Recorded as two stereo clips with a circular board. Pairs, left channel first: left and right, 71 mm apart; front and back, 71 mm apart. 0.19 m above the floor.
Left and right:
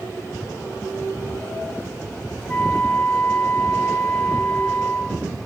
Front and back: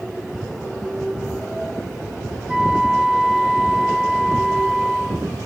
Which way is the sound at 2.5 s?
115° left.